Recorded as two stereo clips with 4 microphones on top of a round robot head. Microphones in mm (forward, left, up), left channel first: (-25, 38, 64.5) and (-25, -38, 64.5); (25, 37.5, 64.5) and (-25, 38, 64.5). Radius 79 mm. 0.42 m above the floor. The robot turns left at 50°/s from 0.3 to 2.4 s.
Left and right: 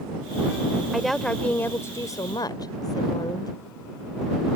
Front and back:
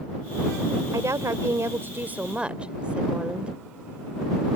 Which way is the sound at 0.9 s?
175° right.